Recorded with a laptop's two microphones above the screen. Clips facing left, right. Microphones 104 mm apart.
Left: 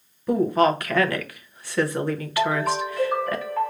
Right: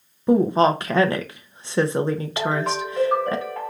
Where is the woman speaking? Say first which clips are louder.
Right 2 dB; 25° right (ahead or behind), 0.6 m.